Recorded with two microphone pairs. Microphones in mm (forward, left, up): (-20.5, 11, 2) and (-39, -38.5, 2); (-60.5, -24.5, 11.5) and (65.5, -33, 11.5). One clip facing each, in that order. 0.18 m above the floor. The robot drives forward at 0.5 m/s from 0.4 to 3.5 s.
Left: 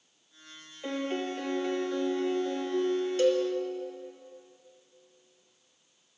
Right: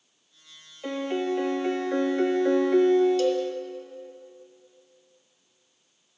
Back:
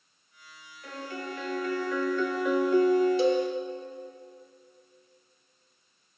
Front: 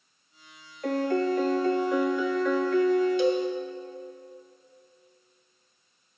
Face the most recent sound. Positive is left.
turn(degrees=130)